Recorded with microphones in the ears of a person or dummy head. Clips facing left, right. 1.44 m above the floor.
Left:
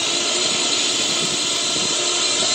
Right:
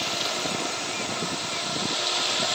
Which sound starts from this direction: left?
A drone, at 0.0 s.